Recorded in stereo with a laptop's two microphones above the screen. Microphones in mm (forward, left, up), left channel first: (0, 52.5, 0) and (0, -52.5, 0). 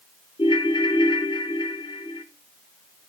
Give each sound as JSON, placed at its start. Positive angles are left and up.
{"t": 0.4, "sound": "a ringtone", "side_deg": 50, "distance_m": 0.7}